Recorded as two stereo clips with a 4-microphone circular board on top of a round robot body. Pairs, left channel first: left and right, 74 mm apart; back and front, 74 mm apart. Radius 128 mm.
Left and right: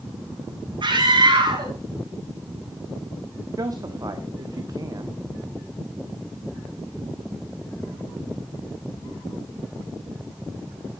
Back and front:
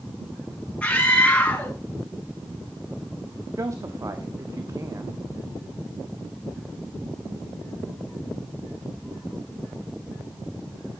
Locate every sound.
0.8 s a scream: 105° right, 5.5 m
3.6 s a man speaking: 50° right, 1.3 m